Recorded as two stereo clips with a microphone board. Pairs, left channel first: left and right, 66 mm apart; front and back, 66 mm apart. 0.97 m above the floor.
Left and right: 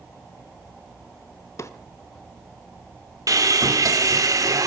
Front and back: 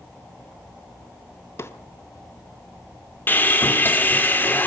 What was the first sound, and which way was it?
A drawer, 50° left.